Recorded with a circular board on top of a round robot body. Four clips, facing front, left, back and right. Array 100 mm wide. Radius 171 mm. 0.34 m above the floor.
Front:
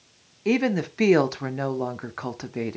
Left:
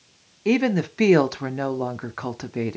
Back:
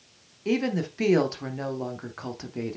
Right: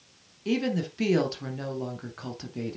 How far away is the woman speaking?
About 1.2 m.